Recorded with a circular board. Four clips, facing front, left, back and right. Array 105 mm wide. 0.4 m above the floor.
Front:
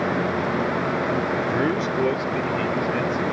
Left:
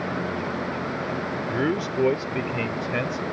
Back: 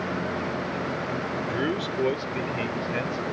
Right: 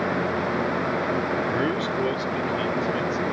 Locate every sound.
1.5 s a man speaking: 15° right; by 3.2 s 95° left